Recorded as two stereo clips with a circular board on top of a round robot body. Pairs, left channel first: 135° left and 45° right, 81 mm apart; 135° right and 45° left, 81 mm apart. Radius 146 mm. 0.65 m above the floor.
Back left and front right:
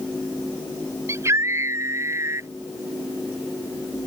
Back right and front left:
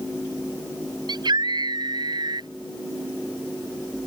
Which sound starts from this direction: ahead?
A scream, at 1.1 s.